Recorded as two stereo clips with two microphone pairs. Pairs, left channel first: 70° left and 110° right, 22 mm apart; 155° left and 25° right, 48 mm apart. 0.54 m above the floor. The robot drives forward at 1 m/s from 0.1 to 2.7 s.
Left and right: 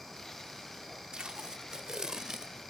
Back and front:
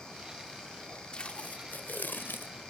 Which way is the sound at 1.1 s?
145° right.